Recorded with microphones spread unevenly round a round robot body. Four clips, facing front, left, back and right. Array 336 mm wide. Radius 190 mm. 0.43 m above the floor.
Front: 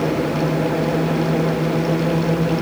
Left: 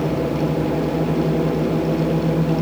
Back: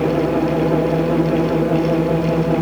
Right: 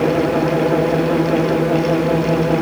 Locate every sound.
Only background noise.